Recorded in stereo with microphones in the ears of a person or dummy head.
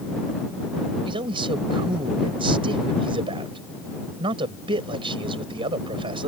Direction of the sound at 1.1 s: 30° right (ahead or behind).